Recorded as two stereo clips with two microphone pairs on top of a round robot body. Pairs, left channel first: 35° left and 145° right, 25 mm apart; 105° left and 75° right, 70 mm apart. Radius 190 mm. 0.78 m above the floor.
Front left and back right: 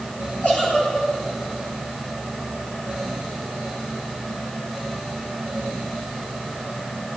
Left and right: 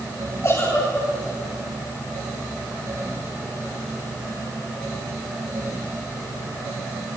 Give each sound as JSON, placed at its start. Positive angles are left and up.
{"t": 0.4, "sound": "a giggle", "azimuth_deg": 65, "distance_m": 9.5}